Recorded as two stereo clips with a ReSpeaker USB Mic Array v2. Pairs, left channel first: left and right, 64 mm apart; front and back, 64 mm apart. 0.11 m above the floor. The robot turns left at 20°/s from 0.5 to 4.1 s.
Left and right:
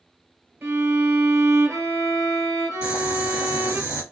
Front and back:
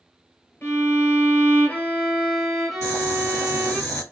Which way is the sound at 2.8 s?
35° right.